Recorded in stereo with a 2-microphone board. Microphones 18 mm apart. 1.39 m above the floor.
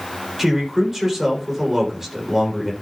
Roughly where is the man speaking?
Right.